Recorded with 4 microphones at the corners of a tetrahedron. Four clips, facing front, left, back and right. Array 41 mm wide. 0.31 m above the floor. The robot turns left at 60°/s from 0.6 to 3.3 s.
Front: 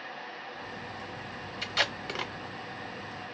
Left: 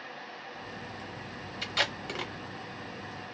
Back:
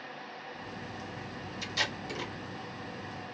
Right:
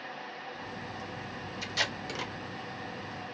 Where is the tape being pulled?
45° left, 1.0 m; by 2.3 s 5° left, 1.0 m.